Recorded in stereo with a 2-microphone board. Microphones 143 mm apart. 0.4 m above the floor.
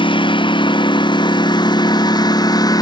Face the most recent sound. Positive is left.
turn(degrees=25)  # may be behind; listen again after turning